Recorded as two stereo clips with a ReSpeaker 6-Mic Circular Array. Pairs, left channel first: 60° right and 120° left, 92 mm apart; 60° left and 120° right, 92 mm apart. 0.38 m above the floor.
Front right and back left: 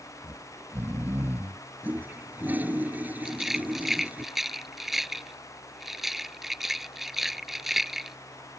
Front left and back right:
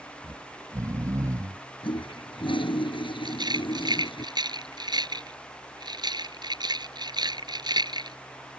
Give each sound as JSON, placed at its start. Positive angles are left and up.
{"t": 0.2, "sound": "snoring", "azimuth_deg": -170}
{"t": 1.8, "sound": "a toilet flushing", "azimuth_deg": 50}
{"t": 3.2, "sound": "a rattle", "azimuth_deg": -155}